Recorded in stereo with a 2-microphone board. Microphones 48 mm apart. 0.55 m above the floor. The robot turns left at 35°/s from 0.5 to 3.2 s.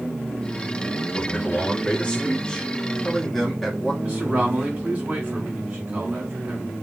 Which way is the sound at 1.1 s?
80° left.